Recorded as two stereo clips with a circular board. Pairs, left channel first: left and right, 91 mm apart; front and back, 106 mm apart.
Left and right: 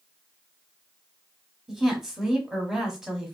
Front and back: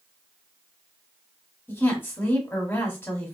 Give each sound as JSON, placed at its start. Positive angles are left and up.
{"t": 1.7, "sound": "a woman speaking", "azimuth_deg": -15, "distance_m": 1.2}